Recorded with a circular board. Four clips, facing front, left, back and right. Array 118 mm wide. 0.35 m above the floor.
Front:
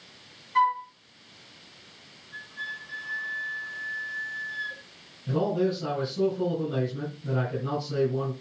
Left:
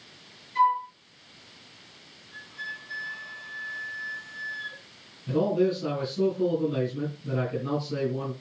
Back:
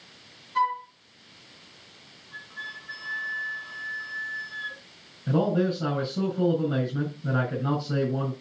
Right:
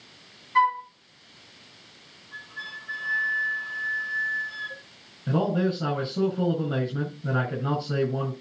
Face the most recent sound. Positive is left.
turn(degrees=-125)